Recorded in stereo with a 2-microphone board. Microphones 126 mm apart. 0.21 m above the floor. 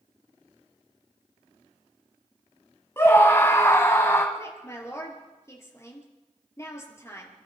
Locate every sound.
3.0 s a scream: 20° left (ahead or behind), 1.2 m
4.3 s a woman speaking: 20° left (ahead or behind), 4.5 m